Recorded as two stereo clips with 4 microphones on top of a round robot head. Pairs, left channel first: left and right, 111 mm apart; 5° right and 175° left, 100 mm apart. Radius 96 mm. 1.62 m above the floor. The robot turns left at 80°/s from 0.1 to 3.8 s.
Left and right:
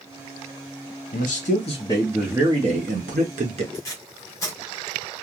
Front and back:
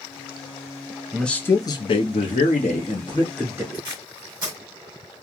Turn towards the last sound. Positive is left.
turn(degrees=135)